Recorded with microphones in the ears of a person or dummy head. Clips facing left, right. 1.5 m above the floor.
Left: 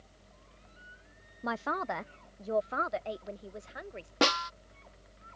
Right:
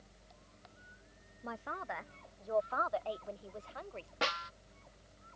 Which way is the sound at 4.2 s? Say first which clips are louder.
Left 10 dB; 55° left (ahead or behind).